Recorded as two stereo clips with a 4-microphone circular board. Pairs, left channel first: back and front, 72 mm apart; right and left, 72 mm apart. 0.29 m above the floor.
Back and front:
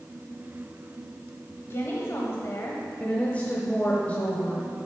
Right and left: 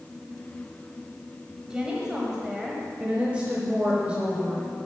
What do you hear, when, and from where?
1.7 s a woman speaking: 160° left, 1.1 m
3.0 s a woman speaking: 140° left, 1.1 m